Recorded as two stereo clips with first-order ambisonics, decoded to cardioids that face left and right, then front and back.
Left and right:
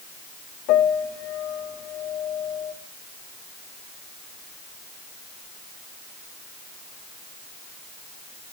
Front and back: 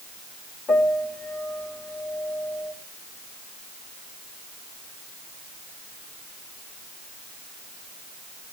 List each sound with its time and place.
0.7 s a piano: 65° left, 3.5 m